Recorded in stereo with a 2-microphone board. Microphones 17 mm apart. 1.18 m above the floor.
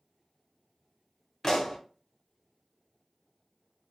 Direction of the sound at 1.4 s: 35° left (ahead or behind).